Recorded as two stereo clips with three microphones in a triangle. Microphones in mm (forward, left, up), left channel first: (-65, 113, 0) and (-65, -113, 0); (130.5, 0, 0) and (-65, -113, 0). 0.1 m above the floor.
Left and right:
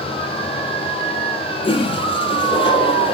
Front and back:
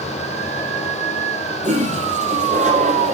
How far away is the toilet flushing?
About 2.5 m.